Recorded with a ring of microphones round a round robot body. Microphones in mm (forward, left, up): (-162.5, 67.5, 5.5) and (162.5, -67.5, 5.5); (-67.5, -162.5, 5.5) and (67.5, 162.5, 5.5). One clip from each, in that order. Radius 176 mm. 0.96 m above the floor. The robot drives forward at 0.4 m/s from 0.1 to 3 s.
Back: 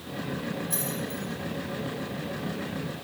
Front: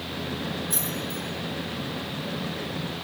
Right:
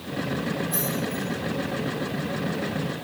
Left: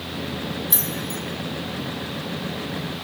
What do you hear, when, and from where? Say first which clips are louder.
0.7 s keys jangling: front 2 dB, even; 65° left, 4 m